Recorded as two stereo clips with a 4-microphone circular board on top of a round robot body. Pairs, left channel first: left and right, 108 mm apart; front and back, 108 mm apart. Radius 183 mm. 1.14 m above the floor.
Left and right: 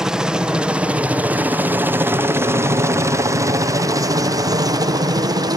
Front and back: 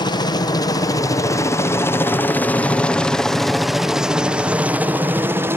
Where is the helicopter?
10° right; by 5.6 s 120° right.